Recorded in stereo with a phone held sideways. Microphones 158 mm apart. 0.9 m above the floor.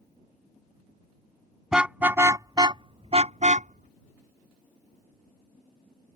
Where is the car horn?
5° right (ahead or behind); by 6.2 s 85° right.